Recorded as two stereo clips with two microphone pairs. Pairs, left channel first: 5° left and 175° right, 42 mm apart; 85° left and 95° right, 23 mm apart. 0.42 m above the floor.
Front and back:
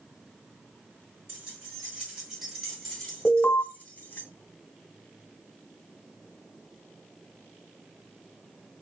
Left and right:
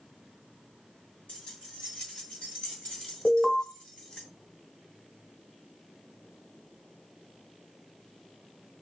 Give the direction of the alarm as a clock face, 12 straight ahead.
12 o'clock.